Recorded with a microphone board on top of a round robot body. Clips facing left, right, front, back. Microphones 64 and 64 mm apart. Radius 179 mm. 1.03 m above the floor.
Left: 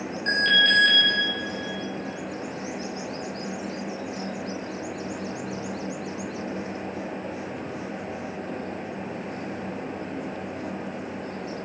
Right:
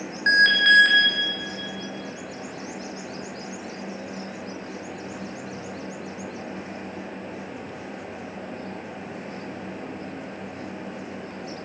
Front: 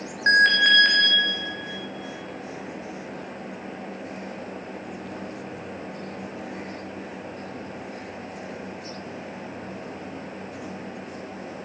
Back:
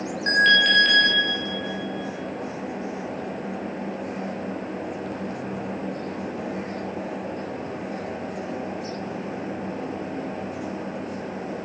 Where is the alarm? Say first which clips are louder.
Right 5 dB, front 1 dB; 55° right, 2 m.